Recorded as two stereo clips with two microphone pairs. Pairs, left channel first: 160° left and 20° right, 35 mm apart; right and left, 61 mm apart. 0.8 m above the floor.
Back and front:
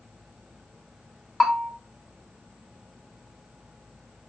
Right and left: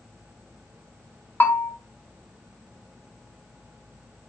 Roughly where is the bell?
Behind right.